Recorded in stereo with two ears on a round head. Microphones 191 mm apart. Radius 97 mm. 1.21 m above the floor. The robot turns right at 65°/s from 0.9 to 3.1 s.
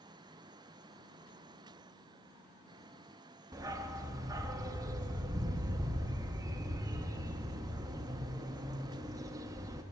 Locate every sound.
3.5 s a dog barking: 15° right (ahead or behind), 0.6 m